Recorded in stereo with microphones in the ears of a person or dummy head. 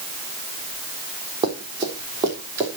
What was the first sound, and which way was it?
Running footsteps, 25° right (ahead or behind).